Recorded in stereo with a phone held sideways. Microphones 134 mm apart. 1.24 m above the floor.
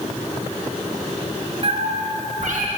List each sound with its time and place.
1.6 s a cat meowing: 45° right (ahead or behind), 0.7 m; by 2.7 s 65° right (ahead or behind), 1.2 m